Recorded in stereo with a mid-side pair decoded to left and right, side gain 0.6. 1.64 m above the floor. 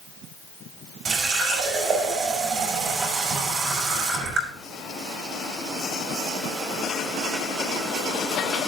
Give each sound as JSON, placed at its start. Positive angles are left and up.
{"t": 1.1, "sound": "a running tap", "azimuth_deg": -40, "distance_m": 5.5}